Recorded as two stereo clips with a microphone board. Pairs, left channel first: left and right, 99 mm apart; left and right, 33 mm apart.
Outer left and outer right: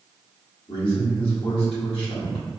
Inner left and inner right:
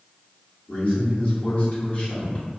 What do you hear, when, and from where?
0.7 s a man speaking: 60° left (ahead or behind), 1.5 m